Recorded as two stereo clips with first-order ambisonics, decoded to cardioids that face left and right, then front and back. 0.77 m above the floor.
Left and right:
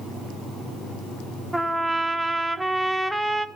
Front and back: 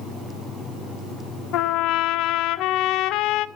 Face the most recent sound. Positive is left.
turn(degrees=-5)